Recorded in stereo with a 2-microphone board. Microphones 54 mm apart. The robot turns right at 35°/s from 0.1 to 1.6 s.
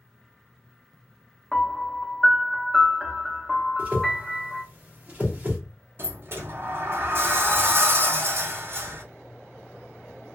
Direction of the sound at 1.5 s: Centre (ahead or behind).